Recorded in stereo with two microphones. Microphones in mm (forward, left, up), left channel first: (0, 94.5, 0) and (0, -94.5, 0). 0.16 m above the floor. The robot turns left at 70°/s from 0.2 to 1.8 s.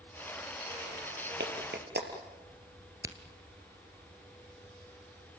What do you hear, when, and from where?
1.4 s a clap: 70° right (ahead or behind), 3.5 m; by 2.1 s 65° right (ahead or behind), 3.5 m
3.0 s a crack: 20° right (ahead or behind), 1.7 m